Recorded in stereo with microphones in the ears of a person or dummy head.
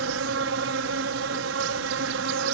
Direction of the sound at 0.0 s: 70° right (ahead or behind).